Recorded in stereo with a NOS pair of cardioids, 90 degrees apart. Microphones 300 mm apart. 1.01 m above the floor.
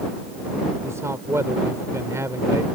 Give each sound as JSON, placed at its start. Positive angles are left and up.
{"t": 0.8, "sound": "a man speaking", "azimuth_deg": -10}